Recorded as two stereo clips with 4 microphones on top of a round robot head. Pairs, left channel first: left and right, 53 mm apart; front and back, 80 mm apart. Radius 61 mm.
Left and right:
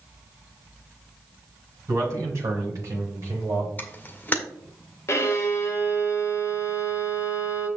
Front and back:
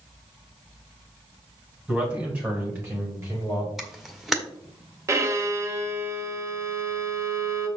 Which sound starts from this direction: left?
A camera shutter, at 3.8 s.